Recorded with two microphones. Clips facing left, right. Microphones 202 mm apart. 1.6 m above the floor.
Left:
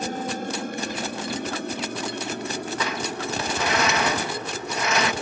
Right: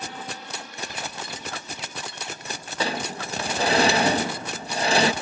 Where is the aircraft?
45° left (ahead or behind); by 5.2 s 80° left.